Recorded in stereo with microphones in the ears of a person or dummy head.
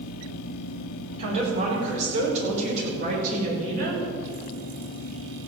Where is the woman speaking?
35° right (ahead or behind), 5.5 m; by 4.0 s 50° right (ahead or behind), 6.5 m.